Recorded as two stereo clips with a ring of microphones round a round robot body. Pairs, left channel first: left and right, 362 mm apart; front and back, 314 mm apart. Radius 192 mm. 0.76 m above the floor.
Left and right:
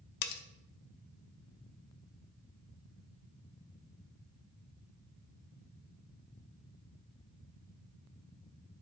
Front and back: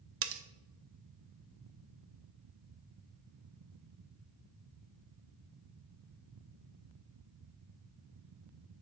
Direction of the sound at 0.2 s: 130° left.